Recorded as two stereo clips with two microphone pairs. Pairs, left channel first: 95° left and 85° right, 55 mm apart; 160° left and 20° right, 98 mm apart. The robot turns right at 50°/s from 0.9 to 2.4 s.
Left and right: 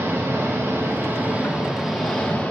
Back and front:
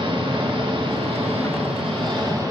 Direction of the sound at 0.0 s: 50° right.